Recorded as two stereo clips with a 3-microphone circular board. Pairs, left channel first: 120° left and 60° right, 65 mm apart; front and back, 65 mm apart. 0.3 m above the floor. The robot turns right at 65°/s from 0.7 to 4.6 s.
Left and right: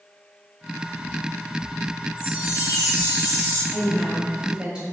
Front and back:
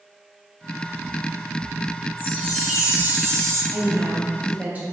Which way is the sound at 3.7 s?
175° left.